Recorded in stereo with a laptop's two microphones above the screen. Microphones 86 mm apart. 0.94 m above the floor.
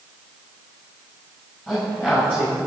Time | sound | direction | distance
1.7 | a man speaking | 15° left (ahead or behind) | 5.5 m